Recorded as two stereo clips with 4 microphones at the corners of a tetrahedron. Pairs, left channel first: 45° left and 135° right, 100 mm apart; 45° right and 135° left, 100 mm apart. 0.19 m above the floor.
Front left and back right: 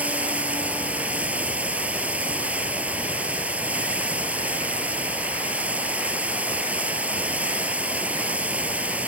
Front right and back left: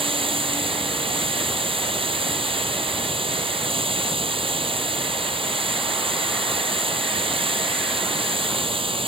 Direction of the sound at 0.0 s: 150° left.